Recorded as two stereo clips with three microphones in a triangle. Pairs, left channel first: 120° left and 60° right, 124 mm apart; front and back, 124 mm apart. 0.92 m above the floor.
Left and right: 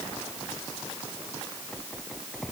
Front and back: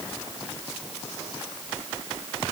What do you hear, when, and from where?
Only background noise.